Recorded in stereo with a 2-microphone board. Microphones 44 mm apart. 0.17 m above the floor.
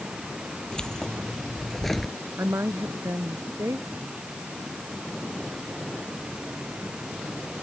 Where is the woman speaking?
80° right.